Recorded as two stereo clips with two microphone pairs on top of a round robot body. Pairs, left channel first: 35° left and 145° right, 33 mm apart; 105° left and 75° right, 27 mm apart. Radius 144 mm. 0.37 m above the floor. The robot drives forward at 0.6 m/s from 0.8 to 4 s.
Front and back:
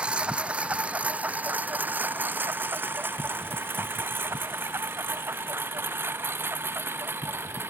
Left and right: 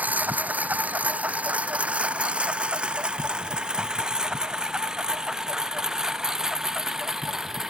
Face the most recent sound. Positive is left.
turn(degrees=-150)